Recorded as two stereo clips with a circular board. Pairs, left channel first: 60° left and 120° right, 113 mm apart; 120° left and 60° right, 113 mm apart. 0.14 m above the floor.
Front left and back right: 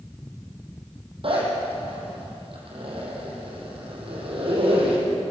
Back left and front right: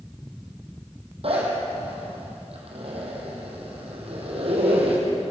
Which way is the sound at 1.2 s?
85° right.